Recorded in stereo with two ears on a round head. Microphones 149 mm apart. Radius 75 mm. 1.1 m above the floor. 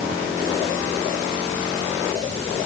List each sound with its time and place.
Only background noise.